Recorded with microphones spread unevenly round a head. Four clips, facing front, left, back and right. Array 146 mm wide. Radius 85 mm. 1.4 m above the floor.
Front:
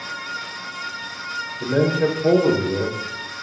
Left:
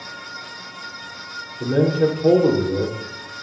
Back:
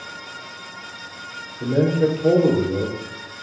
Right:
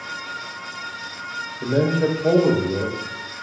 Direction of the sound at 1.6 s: 105° left.